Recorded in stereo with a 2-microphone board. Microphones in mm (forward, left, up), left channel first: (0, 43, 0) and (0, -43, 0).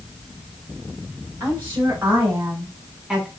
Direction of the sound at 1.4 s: 35° right (ahead or behind).